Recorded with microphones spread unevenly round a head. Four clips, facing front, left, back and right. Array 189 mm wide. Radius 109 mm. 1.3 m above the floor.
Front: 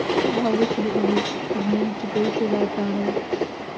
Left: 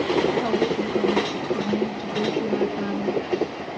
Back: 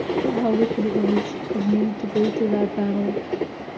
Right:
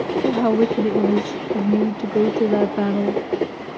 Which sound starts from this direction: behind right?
A woman speaking, at 0.2 s.